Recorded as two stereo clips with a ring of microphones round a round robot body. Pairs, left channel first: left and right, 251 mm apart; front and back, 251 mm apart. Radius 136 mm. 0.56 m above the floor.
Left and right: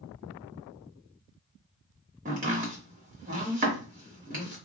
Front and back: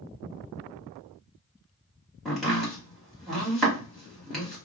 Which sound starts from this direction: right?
Chopping, at 2.2 s.